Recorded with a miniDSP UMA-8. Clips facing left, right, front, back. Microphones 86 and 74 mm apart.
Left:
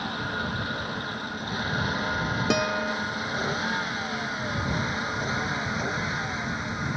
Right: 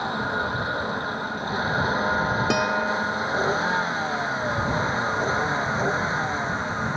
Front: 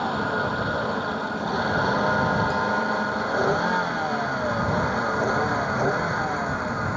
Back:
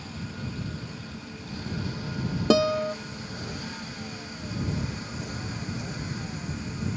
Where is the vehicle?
25° right; by 7.0 s 30° right.